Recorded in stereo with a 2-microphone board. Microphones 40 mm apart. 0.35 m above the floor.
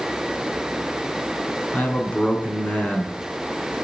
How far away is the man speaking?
About 4 m.